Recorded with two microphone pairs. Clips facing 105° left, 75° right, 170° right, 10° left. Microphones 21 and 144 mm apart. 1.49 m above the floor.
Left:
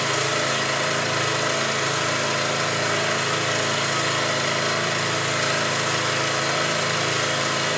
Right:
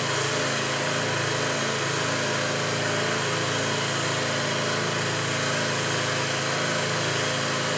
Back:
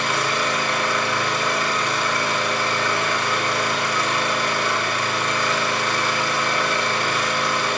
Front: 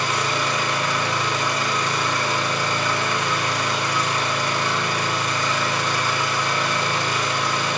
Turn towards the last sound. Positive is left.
turn(degrees=155)